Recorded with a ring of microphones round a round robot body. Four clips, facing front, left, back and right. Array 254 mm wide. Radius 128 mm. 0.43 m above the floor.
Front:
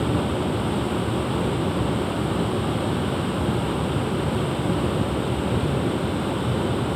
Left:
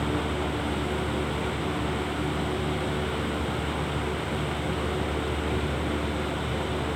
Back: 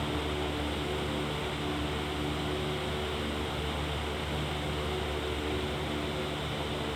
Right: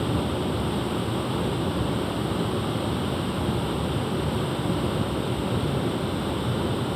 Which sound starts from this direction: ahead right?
Running water, at 0.0 s.